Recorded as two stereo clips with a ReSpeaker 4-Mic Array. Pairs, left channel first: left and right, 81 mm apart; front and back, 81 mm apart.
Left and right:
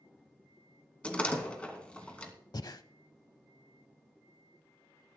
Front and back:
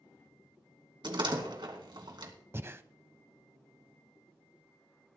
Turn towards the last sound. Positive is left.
turn(degrees=120)